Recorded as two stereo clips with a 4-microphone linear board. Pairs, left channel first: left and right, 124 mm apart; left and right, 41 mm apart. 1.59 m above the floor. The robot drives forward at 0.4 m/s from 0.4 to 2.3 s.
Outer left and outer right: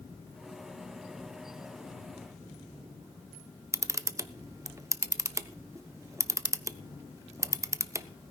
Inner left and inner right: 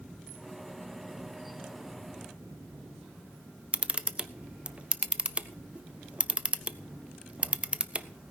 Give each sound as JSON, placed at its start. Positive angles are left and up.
{"t": 3.7, "sound": "a camera shutter", "side_deg": -25, "distance_m": 0.5}